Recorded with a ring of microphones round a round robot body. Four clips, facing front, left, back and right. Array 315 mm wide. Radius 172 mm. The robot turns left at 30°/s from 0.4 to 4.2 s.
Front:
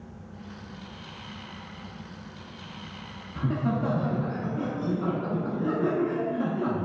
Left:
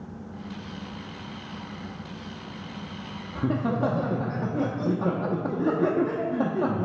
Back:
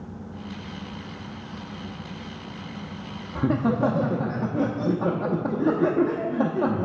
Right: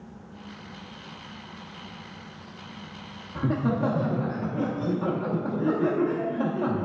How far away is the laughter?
About 0.9 m.